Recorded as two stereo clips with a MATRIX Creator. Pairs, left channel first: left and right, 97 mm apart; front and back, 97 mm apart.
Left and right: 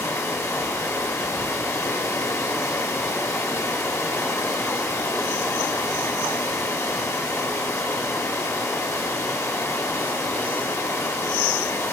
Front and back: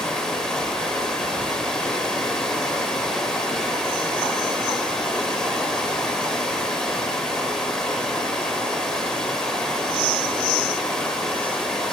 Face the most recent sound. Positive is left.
turn(degrees=75)